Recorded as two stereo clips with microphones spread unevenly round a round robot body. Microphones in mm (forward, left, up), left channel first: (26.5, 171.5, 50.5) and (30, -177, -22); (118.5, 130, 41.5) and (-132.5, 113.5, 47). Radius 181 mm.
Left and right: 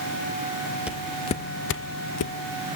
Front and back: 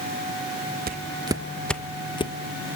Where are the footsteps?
170° left, 0.8 m; by 2.3 s 70° left, 1.1 m.